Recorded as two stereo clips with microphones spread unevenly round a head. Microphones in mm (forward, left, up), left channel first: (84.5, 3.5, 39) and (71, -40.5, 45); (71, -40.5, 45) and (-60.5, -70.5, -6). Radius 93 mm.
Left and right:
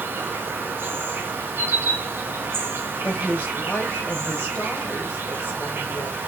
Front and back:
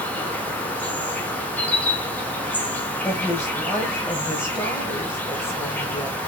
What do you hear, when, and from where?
0.0 s an insect: 85° right, 1.0 m
3.0 s a woman speaking: 105° left, 0.8 m